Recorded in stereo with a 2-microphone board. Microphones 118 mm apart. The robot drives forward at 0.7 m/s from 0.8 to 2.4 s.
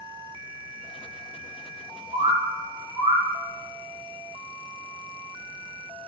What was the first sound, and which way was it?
A bird, 55° right (ahead or behind).